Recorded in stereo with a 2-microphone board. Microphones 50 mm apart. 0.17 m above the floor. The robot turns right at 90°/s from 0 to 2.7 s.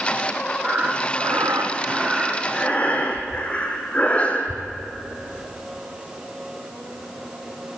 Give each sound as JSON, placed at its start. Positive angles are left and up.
{"t": 0.6, "sound": "breathing", "azimuth_deg": -160, "distance_m": 2.0}